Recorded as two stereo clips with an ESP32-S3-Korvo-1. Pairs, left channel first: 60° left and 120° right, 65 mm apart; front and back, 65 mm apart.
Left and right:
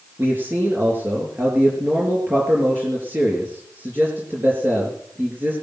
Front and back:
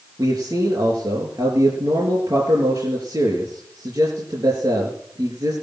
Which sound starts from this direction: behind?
A man speaking, at 0.2 s.